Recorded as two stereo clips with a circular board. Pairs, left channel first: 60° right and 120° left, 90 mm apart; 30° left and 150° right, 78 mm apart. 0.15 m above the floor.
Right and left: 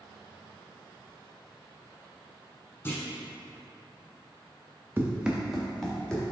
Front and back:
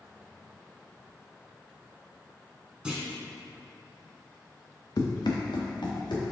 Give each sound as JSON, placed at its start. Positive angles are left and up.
{"t": 2.9, "sound": "a clunk", "azimuth_deg": -85, "distance_m": 1.1}
{"t": 5.0, "sound": "running footsteps", "azimuth_deg": 55, "distance_m": 0.8}